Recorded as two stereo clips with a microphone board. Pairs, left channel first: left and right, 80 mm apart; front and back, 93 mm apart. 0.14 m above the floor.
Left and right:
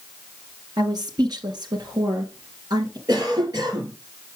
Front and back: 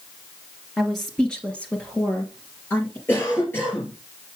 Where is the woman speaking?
90° right, 2.5 m; by 3.0 s 65° right, 3.5 m.